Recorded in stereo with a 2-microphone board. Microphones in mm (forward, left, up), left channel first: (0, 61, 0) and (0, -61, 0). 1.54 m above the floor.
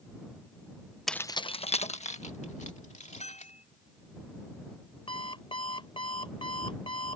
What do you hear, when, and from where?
1.1 s keys jangling: centre (ahead or behind); by 3.5 s 80° left
3.2 s a bell: 65° left (ahead or behind)
5.1 s an alarm clock: 45° left (ahead or behind)